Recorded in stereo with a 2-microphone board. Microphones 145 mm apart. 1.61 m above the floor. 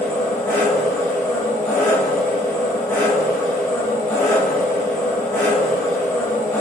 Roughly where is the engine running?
Centre.